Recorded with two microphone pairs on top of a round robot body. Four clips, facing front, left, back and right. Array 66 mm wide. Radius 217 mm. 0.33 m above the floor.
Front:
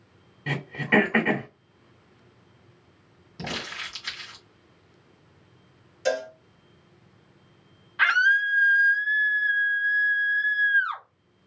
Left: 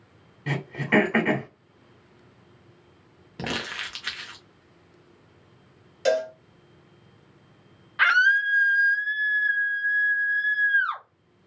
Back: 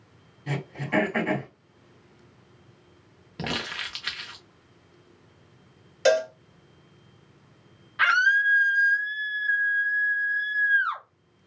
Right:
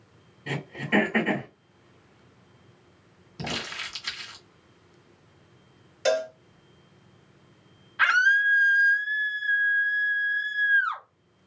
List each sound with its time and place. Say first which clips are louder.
0.5 s throat clearing: left 3 dB, front 5 dB; 45° left, 0.5 m
3.4 s crumpling: left 3 dB, back 2 dB; 135° left, 0.9 m
6.0 s a cowbell: left 1 dB, back 6 dB; 165° right, 0.7 m
8.0 s a scream: left 1 dB, even; 85° left, 1.5 m